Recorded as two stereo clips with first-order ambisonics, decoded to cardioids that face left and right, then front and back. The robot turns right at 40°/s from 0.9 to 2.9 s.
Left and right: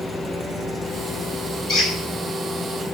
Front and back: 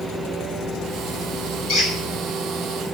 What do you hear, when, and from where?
1.7 s a squeak: 30° left, 1.5 m; by 1.9 s 35° left, 1.5 m